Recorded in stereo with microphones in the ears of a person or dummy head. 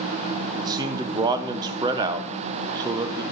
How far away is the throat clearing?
No throat clearing in this recording.